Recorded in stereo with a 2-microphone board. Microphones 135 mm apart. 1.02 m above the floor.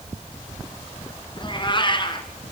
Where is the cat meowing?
35° left (ahead or behind), 2 m.